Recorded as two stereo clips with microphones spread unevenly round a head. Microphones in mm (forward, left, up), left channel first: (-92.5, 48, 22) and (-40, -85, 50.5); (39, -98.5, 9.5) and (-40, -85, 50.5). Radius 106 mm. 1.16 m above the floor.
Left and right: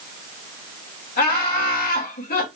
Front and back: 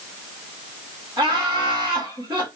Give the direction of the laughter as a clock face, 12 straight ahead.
8 o'clock.